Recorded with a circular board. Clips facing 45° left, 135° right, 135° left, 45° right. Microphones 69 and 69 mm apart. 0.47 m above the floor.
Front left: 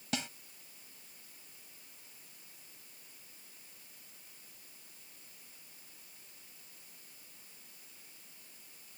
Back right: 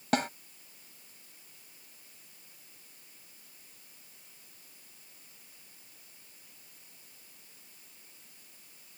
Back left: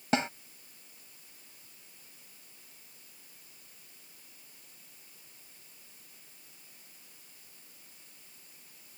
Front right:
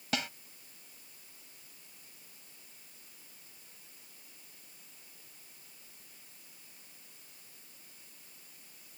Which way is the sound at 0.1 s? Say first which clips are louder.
Back right 10 dB, back left 7 dB; 165° right.